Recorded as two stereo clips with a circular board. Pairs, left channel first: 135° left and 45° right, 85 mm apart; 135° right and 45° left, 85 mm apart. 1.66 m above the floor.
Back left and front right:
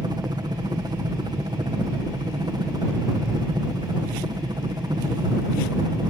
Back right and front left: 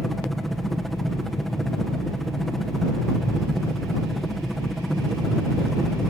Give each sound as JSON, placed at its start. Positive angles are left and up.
{"t": 0.0, "sound": "a helicopter", "azimuth_deg": -45}